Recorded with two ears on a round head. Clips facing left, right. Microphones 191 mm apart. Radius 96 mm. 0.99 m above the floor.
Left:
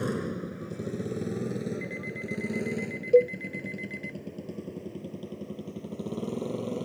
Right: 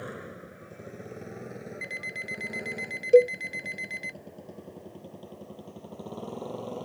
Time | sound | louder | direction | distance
0.0 | a motorcycle | left 10 dB | 55° left (ahead or behind) | ?
1.8 | an alarm clock | left 7 dB | 55° right (ahead or behind) | ?
3.1 | a cowbell | right 2 dB | 20° right (ahead or behind) | ?